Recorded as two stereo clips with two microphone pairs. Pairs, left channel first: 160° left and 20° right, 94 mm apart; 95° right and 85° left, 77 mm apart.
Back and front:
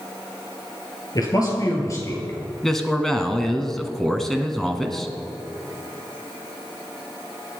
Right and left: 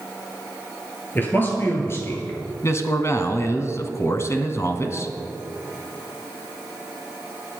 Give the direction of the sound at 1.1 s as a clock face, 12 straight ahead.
5 o'clock.